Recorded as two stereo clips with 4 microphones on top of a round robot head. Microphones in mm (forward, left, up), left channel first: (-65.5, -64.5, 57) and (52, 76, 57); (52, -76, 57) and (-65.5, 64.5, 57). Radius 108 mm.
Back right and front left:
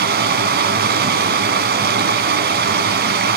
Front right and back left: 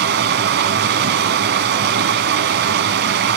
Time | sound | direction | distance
0.0 | running water | 90° left | 1.7 m